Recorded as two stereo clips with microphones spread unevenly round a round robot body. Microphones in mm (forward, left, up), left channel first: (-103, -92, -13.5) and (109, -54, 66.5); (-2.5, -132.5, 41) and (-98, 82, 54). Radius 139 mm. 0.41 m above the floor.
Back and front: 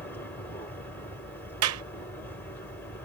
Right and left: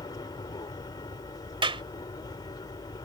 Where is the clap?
45° left.